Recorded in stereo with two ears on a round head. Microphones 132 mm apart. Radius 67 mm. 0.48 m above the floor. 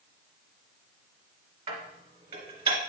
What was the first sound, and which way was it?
Dishes clattering, 40° right (ahead or behind).